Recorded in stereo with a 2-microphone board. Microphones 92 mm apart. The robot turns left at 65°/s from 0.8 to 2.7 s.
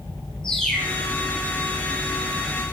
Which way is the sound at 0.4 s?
5° left (ahead or behind).